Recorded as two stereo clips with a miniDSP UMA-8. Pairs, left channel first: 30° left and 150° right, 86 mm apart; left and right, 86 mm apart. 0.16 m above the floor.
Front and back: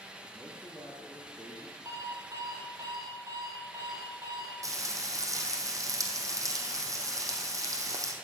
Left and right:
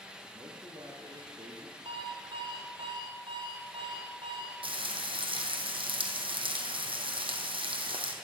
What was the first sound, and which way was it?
A man speaking, 70° right.